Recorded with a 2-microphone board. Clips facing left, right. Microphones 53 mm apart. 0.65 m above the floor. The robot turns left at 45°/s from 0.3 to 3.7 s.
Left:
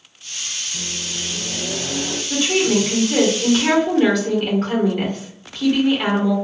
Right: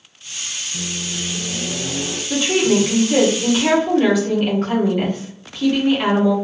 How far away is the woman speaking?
About 1.0 m.